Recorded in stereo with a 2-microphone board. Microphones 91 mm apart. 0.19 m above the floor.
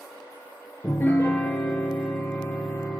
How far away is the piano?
About 0.5 m.